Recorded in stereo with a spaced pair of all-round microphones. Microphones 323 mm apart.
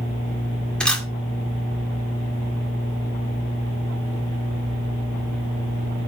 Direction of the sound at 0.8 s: 5° left (ahead or behind).